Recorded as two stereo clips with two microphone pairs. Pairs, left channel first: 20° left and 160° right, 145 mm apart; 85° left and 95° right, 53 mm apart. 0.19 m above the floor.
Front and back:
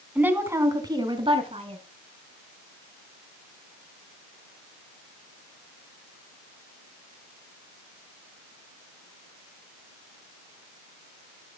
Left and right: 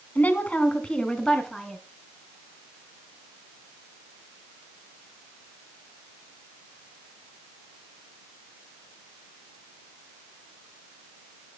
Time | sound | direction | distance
0.1 | a woman speaking | 125° left | 1.9 m